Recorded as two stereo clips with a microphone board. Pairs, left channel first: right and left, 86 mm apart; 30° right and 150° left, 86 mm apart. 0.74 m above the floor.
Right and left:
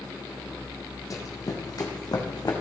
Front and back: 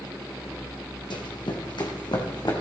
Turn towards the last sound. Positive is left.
turn(degrees=-55)